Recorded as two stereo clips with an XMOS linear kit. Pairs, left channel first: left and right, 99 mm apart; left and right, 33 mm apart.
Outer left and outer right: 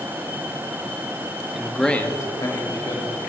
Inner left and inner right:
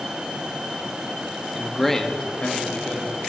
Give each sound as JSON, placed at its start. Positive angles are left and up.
{"t": 1.5, "sound": "a man speaking", "side_deg": -5, "distance_m": 1.2}